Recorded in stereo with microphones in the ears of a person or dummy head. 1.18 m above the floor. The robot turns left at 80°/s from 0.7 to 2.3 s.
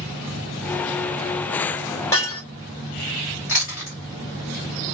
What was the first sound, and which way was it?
Breaking glass, 20° left (ahead or behind).